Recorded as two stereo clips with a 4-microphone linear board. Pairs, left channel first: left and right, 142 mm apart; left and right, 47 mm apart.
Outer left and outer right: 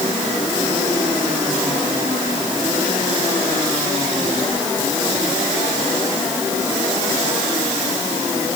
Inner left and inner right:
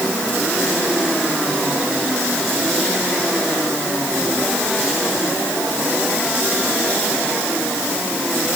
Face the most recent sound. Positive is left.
No sound to turn to.